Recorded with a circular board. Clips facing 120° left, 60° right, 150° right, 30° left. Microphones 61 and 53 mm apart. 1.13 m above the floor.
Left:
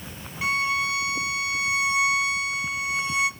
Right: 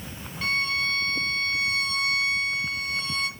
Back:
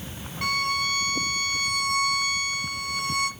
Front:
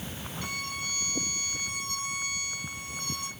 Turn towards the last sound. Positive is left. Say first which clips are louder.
# left 2 dB, back 11 dB
turn(degrees=-160)